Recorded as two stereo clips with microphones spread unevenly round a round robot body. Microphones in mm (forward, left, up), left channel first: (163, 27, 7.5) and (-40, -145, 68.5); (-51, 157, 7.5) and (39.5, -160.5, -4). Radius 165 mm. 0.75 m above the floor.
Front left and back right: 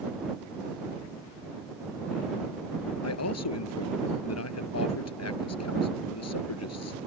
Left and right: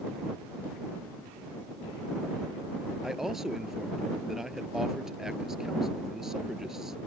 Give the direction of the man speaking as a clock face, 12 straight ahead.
12 o'clock.